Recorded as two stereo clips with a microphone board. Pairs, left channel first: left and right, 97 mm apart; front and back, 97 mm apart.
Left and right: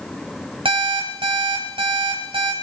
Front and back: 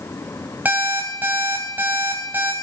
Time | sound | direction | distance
0.7 | an alarm clock | 110° right | 3 m